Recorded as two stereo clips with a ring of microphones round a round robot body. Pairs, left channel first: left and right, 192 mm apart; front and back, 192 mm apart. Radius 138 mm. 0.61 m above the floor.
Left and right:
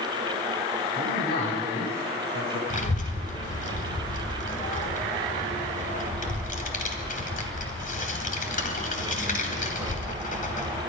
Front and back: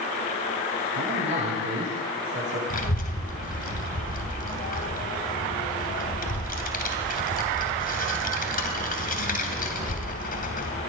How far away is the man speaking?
About 9.5 m.